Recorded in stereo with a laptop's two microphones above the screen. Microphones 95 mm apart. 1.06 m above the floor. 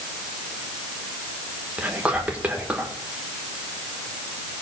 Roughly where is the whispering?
Centre.